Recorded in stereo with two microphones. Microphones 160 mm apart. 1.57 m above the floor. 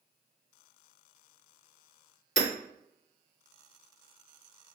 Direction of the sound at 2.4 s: 60° left (ahead or behind).